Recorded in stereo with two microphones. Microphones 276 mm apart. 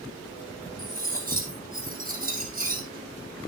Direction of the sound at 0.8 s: 30° right (ahead or behind).